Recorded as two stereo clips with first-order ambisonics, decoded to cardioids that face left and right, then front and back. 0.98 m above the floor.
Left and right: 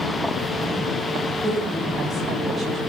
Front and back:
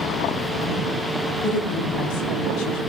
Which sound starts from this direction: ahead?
A woman speaking, at 1.4 s.